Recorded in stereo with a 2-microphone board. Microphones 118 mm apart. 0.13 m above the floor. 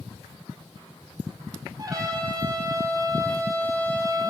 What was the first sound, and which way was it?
A trumpet, 30° right (ahead or behind).